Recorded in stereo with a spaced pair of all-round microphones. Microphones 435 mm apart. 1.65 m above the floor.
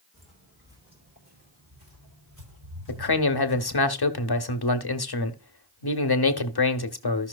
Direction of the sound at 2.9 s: 60° left (ahead or behind).